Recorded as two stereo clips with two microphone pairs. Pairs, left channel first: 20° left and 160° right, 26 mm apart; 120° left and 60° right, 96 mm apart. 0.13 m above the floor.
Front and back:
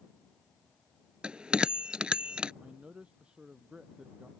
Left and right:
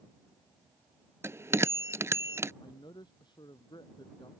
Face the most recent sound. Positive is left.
turn(degrees=155)